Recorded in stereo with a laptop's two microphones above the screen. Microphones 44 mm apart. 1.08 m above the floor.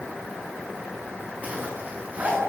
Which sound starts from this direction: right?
A zipper, at 1.4 s.